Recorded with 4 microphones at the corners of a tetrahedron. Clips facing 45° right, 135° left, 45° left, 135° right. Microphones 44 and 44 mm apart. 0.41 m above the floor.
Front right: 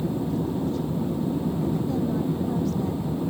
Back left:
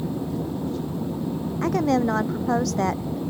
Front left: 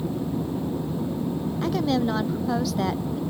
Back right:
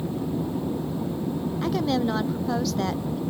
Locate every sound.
1.6 s a woman speaking: 135° left; by 3.2 s 130° left